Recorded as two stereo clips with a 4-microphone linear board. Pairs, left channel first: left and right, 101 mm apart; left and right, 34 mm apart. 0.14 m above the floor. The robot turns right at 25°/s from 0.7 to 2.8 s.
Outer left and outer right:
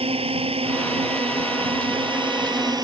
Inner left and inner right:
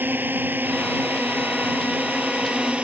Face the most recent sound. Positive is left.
turn(degrees=-40)  # may be behind; listen again after turning